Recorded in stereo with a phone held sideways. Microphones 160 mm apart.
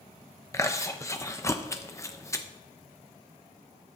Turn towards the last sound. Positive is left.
turn(degrees=20)  # may be behind; listen again after turning